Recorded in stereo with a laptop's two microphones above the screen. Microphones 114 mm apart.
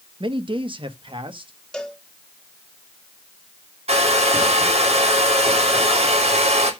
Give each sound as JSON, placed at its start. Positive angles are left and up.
{"t": 0.2, "sound": "a man speaking", "side_deg": -45, "distance_m": 1.1}
{"t": 1.7, "sound": "a cowbell", "side_deg": 5, "distance_m": 1.8}
{"t": 3.9, "sound": "a hair dryer", "side_deg": -65, "distance_m": 3.0}